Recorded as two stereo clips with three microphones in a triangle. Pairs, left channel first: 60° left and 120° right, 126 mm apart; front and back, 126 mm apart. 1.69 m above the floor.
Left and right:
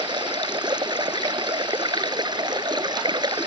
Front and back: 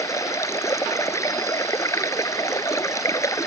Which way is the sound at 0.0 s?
65° right.